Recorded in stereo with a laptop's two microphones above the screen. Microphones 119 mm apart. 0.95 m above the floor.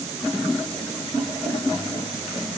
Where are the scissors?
No scissors in this recording.